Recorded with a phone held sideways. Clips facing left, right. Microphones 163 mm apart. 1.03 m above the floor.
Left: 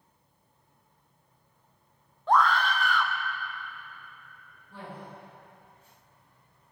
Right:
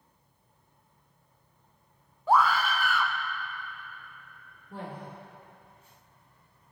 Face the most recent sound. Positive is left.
turn(degrees=-55)  # may be behind; listen again after turning